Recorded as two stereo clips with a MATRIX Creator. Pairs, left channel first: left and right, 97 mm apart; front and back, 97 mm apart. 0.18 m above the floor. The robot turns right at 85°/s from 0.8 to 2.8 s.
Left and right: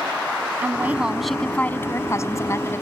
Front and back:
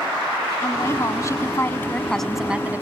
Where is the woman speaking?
40° right; by 2.8 s 130° left.